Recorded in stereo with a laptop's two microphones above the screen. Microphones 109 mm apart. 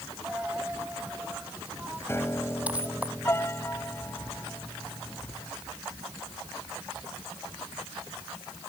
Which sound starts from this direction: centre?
A dropped coin, at 0.2 s.